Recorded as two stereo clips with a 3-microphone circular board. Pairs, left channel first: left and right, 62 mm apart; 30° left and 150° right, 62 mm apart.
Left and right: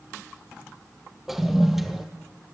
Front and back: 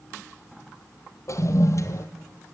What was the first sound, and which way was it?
A toilet flushing, 5° right.